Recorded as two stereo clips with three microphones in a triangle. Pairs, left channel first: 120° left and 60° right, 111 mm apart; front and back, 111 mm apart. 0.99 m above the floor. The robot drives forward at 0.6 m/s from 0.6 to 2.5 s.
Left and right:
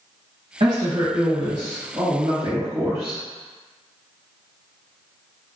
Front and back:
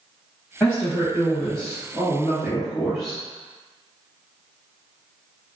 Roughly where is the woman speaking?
Ahead right.